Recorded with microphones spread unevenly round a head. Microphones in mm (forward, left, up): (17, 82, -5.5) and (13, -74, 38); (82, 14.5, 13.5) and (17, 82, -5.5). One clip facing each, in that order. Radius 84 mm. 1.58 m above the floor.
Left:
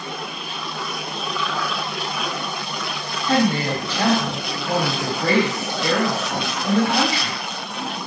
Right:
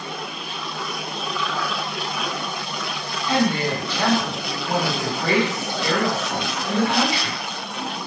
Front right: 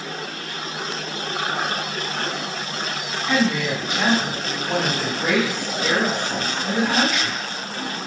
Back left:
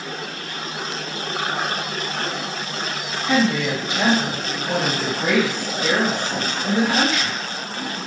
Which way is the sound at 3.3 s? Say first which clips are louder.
Left 2 dB, back left 2 dB; 160° left.